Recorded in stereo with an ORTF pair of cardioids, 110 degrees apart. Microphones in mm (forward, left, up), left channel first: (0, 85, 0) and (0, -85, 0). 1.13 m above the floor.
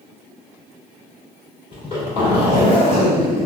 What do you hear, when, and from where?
1.7 s a zipper: 35° left, 1.9 m